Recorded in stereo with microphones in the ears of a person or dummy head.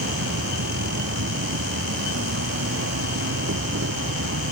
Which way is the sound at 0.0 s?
65° right (ahead or behind).